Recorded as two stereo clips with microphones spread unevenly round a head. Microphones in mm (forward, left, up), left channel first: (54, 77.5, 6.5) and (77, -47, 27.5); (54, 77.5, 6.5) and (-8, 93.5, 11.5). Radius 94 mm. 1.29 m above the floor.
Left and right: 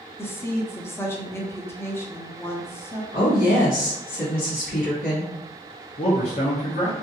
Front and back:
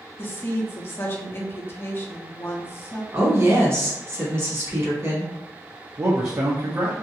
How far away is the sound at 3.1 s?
About 1.6 m.